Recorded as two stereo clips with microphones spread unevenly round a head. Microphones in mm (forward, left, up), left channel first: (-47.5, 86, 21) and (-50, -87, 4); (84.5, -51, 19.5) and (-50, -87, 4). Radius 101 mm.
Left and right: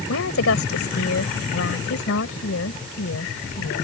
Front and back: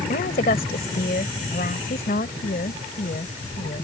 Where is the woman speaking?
65° left.